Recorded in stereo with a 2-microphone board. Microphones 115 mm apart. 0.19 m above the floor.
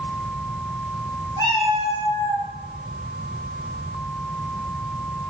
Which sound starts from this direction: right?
A cat meowing, at 1.4 s.